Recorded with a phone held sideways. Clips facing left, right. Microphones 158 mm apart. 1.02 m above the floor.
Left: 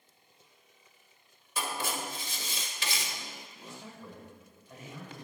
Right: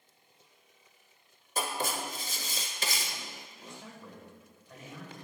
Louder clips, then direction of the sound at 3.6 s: Left 1 dB; 5° left (ahead or behind).